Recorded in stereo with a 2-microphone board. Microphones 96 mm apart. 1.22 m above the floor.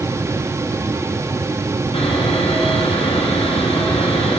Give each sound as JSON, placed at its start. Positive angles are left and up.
{"t": 1.9, "sound": "sawing", "side_deg": 80, "distance_m": 8.0}